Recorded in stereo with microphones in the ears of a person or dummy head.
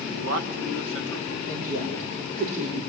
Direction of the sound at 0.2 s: 75° right (ahead or behind).